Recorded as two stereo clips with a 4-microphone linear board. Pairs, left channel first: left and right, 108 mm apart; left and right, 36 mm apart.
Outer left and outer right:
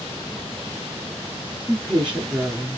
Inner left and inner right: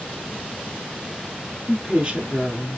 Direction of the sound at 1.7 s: 10° right (ahead or behind).